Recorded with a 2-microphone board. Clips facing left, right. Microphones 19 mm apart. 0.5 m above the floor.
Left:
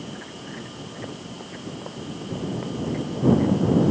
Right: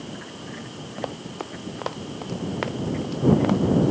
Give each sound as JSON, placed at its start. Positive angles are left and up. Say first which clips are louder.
{"t": 1.0, "sound": "running footsteps", "louder": "right 7 dB", "side_deg": -80}